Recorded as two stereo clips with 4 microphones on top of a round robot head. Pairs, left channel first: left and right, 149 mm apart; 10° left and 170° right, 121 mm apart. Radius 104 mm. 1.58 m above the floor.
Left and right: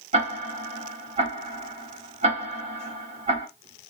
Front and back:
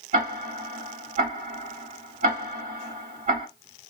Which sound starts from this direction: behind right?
Ticking, at 0.1 s.